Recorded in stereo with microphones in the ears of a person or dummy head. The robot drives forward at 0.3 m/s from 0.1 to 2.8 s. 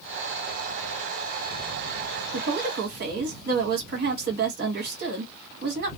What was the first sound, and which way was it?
A woman speaking, 60° right (ahead or behind).